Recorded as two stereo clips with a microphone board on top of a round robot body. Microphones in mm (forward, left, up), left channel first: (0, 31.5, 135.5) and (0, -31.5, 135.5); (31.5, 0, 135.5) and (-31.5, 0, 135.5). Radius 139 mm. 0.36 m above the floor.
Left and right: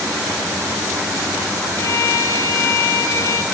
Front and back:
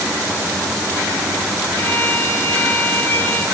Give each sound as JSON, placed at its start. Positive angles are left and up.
{"t": 1.8, "sound": "a violin", "azimuth_deg": 55, "distance_m": 2.0}